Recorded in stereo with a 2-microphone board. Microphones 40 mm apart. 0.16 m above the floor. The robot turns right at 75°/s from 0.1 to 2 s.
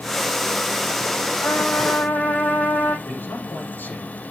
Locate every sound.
1.4 s a trumpet: 65° left, 6 m; by 3.0 s 110° left, 6 m
3.0 s a man speaking: 60° left (ahead or behind), 6 m